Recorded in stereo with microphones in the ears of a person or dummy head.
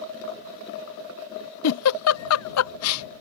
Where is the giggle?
85° left.